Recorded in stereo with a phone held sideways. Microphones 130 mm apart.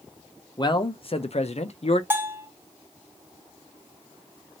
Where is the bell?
20° right (ahead or behind), 0.9 m.